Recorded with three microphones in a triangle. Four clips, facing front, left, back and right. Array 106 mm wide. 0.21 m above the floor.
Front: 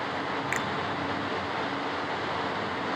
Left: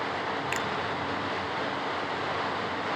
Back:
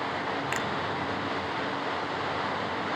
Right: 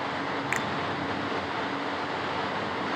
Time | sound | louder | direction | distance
0.5 | a finger snap | right 1 dB, even | 60° right | 0.8 m